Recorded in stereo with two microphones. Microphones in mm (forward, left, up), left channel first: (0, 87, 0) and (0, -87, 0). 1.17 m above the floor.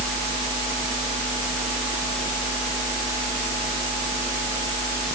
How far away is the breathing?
No breathing in this recording.